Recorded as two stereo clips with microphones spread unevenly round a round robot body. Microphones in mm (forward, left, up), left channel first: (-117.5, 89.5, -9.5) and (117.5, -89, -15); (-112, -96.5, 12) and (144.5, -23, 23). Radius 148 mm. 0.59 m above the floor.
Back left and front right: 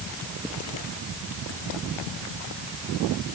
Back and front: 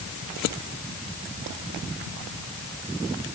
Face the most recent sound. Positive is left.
No sound to turn to.